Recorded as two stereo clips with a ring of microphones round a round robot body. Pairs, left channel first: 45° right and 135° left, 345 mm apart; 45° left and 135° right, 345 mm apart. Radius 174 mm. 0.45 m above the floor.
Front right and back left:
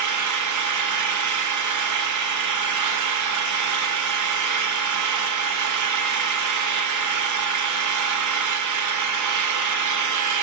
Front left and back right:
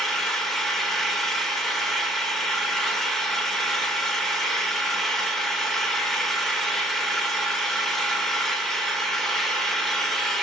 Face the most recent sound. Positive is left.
turn(degrees=135)